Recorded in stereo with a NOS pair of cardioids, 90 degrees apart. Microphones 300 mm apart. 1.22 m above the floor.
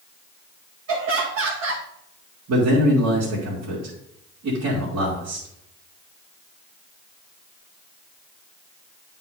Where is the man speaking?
60° right, 3 m.